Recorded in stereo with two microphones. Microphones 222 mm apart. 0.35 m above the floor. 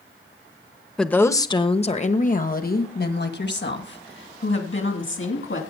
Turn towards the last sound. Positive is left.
turn(degrees=65)  # may be behind; listen again after turning